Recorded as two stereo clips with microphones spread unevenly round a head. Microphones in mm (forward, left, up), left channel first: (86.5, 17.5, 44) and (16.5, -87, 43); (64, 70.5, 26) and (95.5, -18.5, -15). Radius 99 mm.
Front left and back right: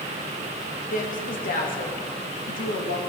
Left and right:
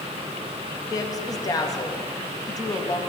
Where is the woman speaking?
55° left, 2.0 m.